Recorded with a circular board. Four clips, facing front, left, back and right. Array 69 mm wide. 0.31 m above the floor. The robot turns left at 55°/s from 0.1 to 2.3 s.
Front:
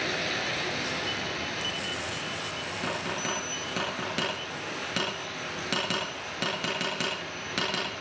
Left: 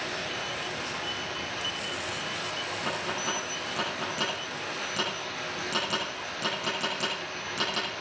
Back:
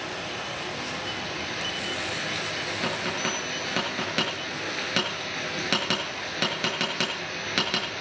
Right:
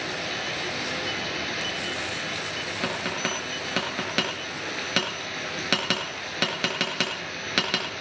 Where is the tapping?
110° right, 6 m.